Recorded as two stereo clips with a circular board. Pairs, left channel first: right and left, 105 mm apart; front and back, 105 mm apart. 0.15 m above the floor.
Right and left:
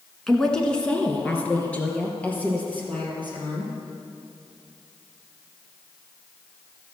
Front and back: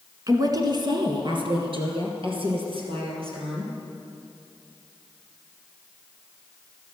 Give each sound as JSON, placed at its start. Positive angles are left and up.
{"t": 0.3, "sound": "a woman speaking", "azimuth_deg": -170, "distance_m": 1.6}